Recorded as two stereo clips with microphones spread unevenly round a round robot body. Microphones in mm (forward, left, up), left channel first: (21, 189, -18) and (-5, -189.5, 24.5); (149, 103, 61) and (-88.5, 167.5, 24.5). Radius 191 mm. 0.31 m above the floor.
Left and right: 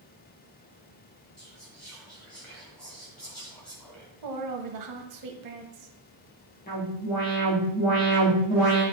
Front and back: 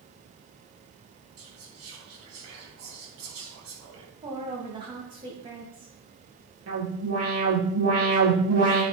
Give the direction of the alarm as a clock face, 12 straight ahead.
7 o'clock.